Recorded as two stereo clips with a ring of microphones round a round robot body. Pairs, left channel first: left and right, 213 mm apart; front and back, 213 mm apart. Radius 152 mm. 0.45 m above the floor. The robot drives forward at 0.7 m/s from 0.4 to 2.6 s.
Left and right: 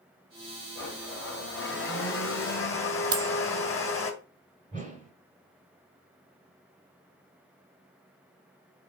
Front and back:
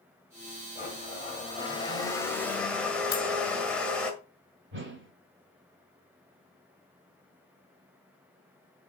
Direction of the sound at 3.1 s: 50° right.